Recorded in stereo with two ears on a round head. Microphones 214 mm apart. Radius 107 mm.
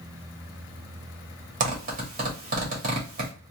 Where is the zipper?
35° right (ahead or behind), 2 m.